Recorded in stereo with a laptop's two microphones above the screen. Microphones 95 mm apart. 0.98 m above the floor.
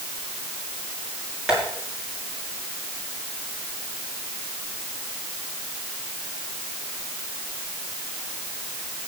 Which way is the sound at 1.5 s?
10° right (ahead or behind).